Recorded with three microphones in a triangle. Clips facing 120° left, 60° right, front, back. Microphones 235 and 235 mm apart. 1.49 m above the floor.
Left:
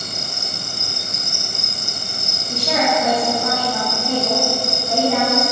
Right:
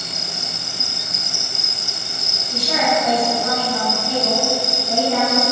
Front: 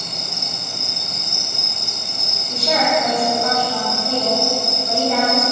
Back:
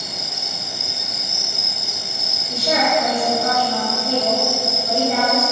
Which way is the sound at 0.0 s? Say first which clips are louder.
Left 1 dB, front 1 dB; 20° right.